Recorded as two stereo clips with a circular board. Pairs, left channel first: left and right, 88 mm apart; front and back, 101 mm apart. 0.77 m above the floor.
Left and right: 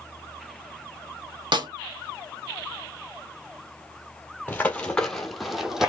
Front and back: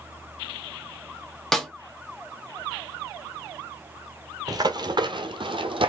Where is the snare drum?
85° right, 1.2 m.